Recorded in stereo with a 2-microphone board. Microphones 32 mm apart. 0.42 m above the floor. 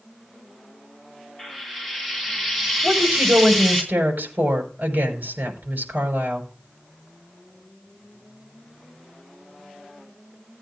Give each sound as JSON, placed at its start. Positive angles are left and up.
{"t": 1.4, "sound": "frying", "side_deg": 0, "distance_m": 3.0}
{"t": 2.8, "sound": "a woman speaking", "side_deg": -70, "distance_m": 5.5}